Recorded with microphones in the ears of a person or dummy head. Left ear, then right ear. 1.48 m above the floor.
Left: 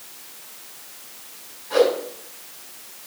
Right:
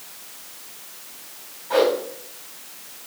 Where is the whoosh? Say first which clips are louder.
Left 1 dB; 35° right (ahead or behind), 3.5 m.